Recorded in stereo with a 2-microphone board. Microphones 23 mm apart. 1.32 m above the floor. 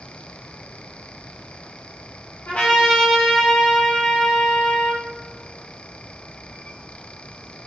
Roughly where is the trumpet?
Left.